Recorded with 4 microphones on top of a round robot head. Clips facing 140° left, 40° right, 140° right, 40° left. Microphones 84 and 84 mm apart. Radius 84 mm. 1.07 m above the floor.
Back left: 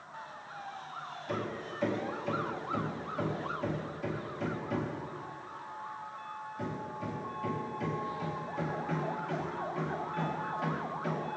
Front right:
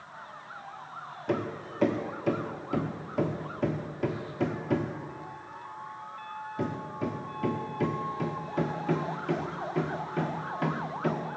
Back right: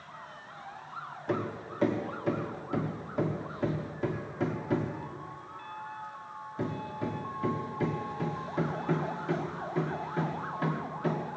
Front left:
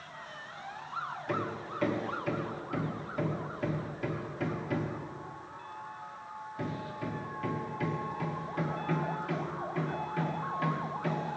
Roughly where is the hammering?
Right.